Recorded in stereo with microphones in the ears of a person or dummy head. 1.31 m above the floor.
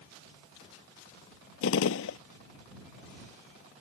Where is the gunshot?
80° left.